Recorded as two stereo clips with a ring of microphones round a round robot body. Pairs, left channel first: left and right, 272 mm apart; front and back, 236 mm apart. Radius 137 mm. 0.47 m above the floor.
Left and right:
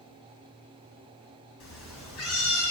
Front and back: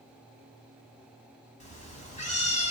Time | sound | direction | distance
1.6 | a cat meowing | 60° left | 1.9 m